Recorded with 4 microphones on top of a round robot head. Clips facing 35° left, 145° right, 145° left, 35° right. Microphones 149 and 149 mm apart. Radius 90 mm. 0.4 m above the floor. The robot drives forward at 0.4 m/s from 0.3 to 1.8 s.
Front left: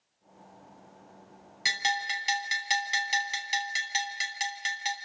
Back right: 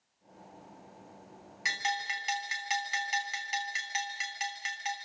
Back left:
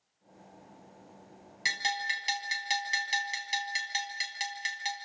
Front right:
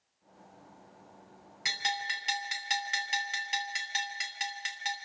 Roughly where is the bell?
Left.